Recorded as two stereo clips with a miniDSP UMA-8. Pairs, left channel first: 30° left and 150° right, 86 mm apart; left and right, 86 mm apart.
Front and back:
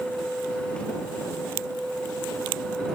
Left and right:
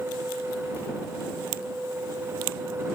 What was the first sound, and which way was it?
Only background noise.